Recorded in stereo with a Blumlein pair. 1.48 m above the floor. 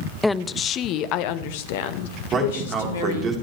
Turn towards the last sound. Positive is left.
turn(degrees=-25)